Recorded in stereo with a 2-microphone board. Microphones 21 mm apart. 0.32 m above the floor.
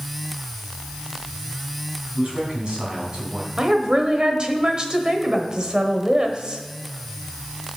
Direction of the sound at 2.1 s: 40° right (ahead or behind).